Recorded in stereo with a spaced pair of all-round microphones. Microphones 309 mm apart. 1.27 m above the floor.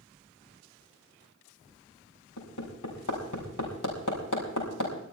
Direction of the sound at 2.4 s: 75° left (ahead or behind).